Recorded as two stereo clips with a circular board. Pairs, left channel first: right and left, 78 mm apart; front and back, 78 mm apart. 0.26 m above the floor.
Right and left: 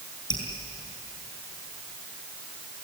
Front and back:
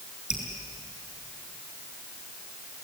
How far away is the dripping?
About 5 m.